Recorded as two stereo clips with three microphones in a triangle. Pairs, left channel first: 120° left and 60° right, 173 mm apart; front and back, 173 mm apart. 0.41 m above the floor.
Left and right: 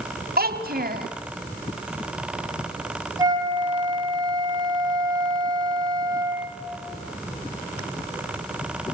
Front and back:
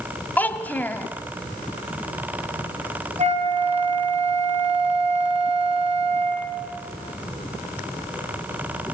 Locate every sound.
0.4 s a child speaking: 80° right, 2.0 m
3.2 s a flute: 130° right, 3 m